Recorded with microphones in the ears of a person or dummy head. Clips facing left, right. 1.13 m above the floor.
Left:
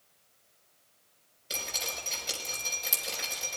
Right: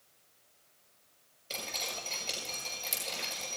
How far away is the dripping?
About 6.5 m.